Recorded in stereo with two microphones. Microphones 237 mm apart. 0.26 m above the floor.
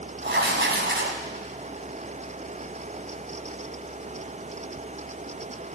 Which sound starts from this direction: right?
Writing, at 0.2 s.